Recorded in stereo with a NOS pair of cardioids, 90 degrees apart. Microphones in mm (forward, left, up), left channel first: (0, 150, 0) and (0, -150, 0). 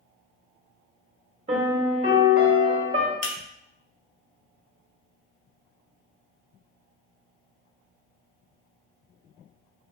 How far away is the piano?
About 1.2 m.